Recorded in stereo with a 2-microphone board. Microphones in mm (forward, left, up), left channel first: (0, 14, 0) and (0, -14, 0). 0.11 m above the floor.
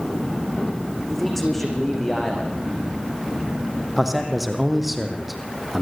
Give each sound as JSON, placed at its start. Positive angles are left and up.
{"t": 1.1, "sound": "a man speaking", "side_deg": 10, "distance_m": 7.5}
{"t": 4.0, "sound": "a man speaking", "side_deg": -5, "distance_m": 4.5}